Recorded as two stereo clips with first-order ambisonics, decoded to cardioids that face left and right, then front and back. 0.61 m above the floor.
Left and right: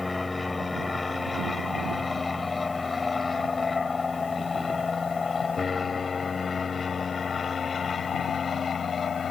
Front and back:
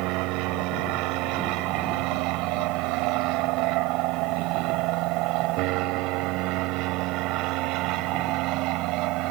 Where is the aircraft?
170° left; by 9.3 s 155° left.